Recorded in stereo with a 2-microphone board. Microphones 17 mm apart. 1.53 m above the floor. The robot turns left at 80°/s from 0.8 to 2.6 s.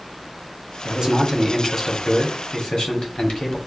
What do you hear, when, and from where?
0.8 s a man speaking: 130° right, 1.4 m; by 3.6 s 90° left, 1.4 m